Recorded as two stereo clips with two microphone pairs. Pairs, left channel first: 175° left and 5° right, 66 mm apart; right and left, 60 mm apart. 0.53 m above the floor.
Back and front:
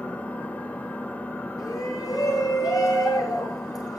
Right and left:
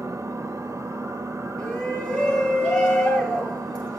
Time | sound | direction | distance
0.0 | an engine running | 110° left | 1.4 m
1.6 | a shout | 160° right | 9 m